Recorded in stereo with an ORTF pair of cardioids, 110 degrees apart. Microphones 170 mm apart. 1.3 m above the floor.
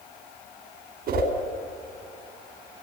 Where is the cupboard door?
I don't hear a cupboard door.